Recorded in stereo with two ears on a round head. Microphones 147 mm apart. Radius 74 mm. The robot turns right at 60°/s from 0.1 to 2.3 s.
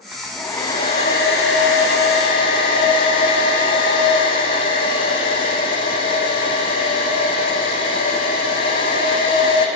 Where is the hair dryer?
5° right, 8.5 m; by 9.7 s 125° left, 8.5 m.